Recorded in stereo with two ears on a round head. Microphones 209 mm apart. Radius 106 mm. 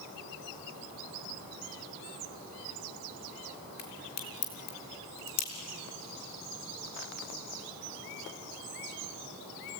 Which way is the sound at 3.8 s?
80° left.